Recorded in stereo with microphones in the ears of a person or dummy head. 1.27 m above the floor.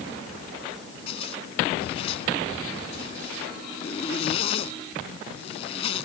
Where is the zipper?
30° left (ahead or behind).